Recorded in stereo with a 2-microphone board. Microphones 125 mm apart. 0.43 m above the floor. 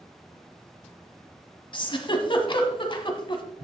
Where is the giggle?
40° left (ahead or behind), 1.0 m.